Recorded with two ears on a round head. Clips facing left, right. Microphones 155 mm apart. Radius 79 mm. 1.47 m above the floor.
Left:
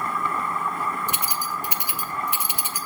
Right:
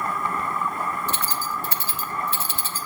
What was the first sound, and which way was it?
Keys jangling, 15° left (ahead or behind).